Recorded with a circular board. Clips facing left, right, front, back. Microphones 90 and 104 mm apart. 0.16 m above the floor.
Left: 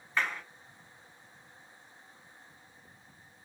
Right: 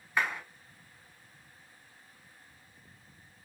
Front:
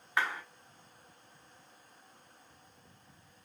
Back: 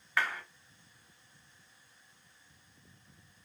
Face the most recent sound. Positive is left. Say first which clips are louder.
# right 1 dB, even
turn(degrees=-30)